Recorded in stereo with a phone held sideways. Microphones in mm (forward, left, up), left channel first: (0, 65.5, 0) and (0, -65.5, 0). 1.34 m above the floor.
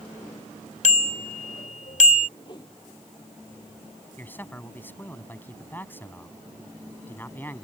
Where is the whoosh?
35° left (ahead or behind).